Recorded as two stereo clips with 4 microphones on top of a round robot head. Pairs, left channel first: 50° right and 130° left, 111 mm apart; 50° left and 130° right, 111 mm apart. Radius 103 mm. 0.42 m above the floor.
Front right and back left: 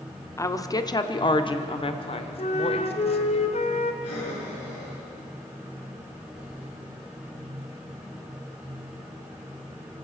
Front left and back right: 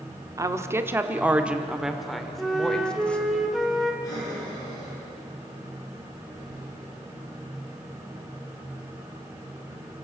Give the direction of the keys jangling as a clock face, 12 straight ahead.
I don't hear keys jangling.